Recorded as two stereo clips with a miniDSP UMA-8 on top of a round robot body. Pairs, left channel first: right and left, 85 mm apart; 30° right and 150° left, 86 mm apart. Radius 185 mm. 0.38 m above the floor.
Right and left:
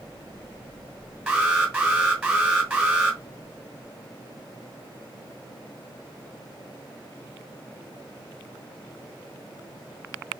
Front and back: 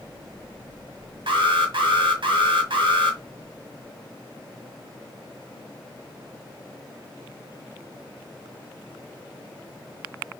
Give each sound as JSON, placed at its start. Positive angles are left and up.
{"t": 1.3, "sound": "an alarm", "azimuth_deg": 170, "distance_m": 1.8}